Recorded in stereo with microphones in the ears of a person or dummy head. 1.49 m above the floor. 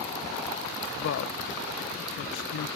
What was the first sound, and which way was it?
A woman speaking, 60° left (ahead or behind).